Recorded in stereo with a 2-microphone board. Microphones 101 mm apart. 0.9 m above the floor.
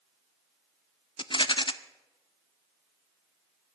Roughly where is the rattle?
Left.